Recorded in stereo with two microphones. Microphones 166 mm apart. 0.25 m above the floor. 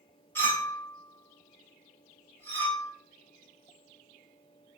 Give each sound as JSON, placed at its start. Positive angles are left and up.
{"t": 0.3, "sound": "a clink", "side_deg": 15, "distance_m": 0.9}